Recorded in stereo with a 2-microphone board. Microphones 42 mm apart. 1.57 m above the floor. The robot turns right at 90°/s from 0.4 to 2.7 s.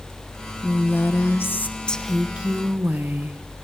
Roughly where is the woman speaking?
Ahead left.